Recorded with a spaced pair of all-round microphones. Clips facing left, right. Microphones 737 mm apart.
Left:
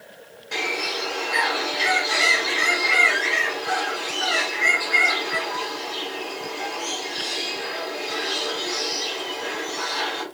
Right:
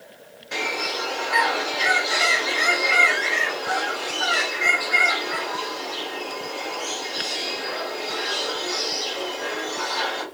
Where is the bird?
10° right (ahead or behind), 1.0 m.